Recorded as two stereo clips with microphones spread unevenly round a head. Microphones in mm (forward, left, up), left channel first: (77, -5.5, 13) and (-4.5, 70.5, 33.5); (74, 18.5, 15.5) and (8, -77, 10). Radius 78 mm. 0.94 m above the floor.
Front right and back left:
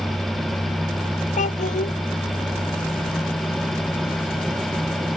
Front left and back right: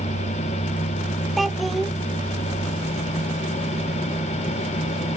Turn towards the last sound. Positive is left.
turn(degrees=-35)